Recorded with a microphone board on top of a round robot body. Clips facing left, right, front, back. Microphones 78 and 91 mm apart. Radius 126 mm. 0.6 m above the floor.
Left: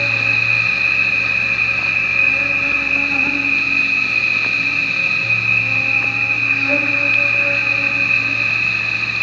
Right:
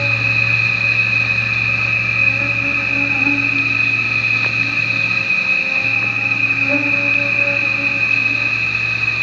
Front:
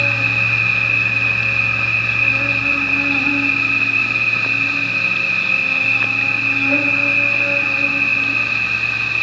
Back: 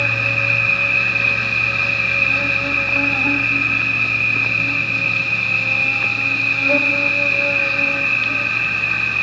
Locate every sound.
0.0 s an insect: 145° left, 5.5 m